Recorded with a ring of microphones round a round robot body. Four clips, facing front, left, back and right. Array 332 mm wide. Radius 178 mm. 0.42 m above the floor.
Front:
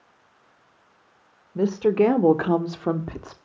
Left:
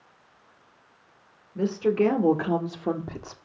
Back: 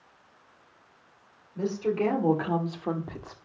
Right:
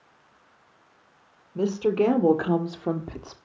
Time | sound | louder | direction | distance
1.6 | a woman speaking | even, front 8 dB | 15° right | 2 m